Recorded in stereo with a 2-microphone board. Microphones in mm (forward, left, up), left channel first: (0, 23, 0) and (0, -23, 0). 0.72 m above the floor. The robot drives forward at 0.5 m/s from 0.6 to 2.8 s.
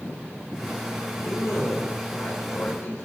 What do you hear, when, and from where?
1.2 s a man speaking: 60° left (ahead or behind), 3 m; by 3.1 s 70° left (ahead or behind), 3 m